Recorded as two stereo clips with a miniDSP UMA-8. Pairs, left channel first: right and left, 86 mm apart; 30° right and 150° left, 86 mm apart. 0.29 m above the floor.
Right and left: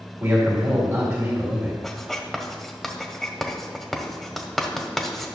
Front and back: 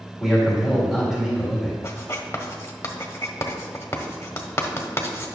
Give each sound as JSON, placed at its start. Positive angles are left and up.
{"t": 0.2, "sound": "a man speaking", "azimuth_deg": 70, "distance_m": 1.7}
{"t": 1.8, "sound": "writing", "azimuth_deg": -5, "distance_m": 0.9}